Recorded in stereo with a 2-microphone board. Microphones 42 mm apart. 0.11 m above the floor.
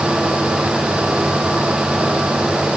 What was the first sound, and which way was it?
Only background noise.